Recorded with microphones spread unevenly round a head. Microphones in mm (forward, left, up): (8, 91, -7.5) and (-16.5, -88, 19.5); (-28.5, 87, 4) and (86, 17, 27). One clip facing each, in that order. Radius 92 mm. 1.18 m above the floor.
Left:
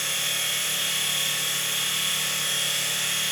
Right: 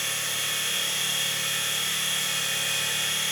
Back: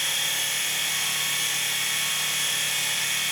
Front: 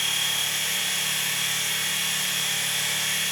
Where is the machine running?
85° left, 1.2 m.